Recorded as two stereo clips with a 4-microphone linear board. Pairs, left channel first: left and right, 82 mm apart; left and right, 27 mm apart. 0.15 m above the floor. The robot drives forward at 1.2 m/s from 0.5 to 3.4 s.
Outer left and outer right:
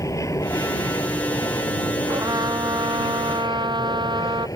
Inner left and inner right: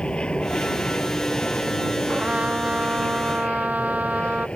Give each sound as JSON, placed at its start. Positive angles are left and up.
{"t": 0.0, "sound": "an aircraft", "side_deg": 40}
{"t": 2.1, "sound": "a trumpet", "side_deg": -50}